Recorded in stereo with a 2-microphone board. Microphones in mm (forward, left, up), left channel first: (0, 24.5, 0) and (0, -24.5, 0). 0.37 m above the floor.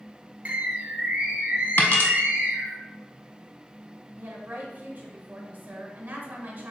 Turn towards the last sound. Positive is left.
turn(degrees=-45)  # may be behind; listen again after turning